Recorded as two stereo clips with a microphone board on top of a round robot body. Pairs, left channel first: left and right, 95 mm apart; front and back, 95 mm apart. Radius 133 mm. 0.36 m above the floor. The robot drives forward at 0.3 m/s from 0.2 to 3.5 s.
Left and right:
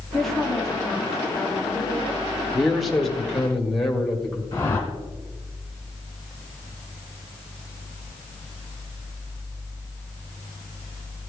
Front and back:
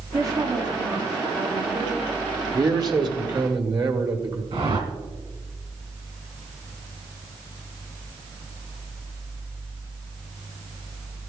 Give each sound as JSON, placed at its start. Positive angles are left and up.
{"t": 0.1, "sound": "a woman speaking", "azimuth_deg": 175, "distance_m": 1.4}
{"t": 2.5, "sound": "a man speaking", "azimuth_deg": 180, "distance_m": 1.6}
{"t": 4.5, "sound": "a whoosh", "azimuth_deg": 150, "distance_m": 1.9}